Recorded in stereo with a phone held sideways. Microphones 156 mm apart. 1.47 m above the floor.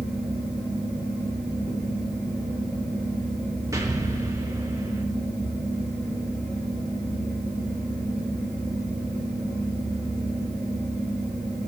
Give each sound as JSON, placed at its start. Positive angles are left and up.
{"t": 0.0, "sound": "a fan", "side_deg": 10, "distance_m": 4.5}
{"t": 3.7, "sound": "an explosion", "side_deg": -20, "distance_m": 1.0}